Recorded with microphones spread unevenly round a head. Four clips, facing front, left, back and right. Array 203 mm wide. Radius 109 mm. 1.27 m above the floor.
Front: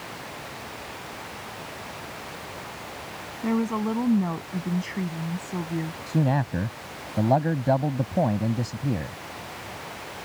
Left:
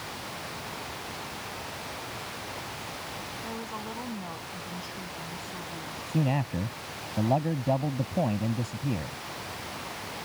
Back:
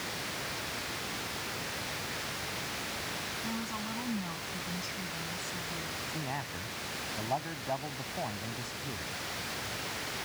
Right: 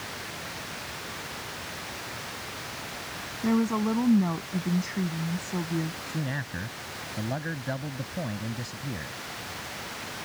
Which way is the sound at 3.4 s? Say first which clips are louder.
Right 15 dB, front 15 dB; 55° right.